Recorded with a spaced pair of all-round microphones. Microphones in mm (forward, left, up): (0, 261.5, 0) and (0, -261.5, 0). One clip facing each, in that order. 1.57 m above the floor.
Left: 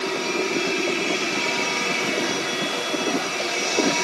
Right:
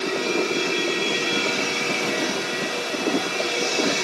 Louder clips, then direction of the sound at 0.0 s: Right 2 dB; 20° left (ahead or behind).